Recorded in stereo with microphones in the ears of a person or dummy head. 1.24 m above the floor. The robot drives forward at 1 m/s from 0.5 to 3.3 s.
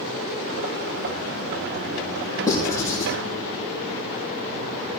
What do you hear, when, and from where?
2.5 s writing: 20° left (ahead or behind), 4.5 m